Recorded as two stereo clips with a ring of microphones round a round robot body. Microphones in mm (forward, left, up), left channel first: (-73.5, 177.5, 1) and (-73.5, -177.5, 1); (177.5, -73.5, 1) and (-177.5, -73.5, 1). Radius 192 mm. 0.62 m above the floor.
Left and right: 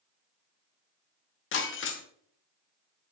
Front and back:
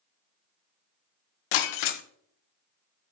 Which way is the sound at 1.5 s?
30° left.